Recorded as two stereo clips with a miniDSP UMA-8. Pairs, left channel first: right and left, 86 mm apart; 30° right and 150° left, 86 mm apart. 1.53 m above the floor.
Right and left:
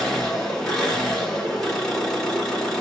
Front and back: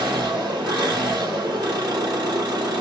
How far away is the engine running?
About 1.8 m.